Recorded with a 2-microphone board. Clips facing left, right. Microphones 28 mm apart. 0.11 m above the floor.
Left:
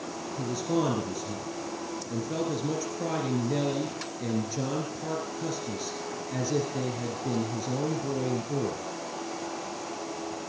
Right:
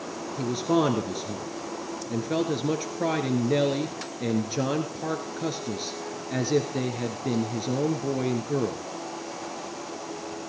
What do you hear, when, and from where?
0.4 s a man speaking: 35° right (ahead or behind), 2 m